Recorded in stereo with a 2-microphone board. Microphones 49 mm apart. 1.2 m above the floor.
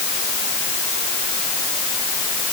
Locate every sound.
Only background noise.